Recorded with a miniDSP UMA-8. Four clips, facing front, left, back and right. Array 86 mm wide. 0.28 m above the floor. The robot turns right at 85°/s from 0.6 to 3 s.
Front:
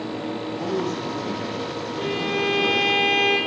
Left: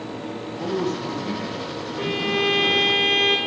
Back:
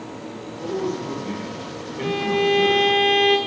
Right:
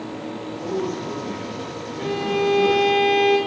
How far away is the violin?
About 1.8 m.